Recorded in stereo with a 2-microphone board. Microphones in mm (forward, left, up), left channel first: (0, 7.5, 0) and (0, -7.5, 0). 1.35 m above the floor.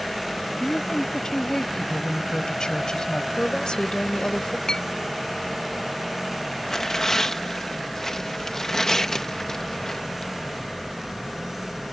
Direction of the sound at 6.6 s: 30° left (ahead or behind).